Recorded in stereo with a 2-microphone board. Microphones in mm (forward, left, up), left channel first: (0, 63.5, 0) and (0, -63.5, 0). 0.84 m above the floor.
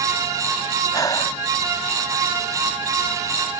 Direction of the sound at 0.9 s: 25° left (ahead or behind).